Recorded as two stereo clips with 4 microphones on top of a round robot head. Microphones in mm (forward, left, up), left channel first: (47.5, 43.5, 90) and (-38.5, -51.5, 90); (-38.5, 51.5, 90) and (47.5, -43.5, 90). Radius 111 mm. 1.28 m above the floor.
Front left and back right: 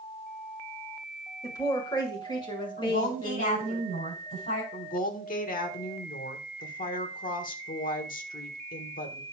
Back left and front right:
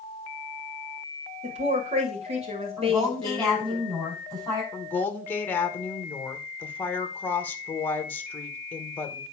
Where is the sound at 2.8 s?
45° left, 7 m.